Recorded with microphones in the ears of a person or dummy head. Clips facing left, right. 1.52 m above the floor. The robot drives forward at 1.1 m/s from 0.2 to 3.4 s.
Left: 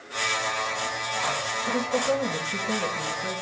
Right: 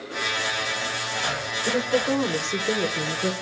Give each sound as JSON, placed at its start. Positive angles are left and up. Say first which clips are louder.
{"t": 1.7, "sound": "a woman speaking", "louder": "right 2 dB", "side_deg": -45, "distance_m": 1.4}